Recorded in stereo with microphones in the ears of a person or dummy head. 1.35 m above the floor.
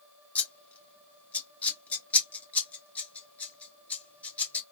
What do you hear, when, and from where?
0.3 s scissors: 5° left (ahead or behind), 1.1 m